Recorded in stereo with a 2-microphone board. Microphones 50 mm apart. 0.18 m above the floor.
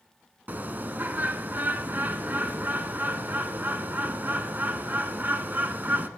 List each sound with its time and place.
0.5 s a bird: 40° right (ahead or behind), 0.6 m